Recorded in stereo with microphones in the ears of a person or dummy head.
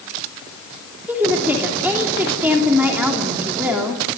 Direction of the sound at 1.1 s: 10° right (ahead or behind).